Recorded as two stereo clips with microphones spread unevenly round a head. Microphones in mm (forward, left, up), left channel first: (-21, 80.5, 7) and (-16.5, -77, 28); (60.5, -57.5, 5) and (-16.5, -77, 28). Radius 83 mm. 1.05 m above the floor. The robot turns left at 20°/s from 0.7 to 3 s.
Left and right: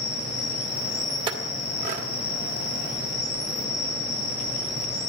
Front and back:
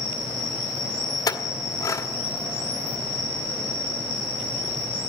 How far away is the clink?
About 1.5 m.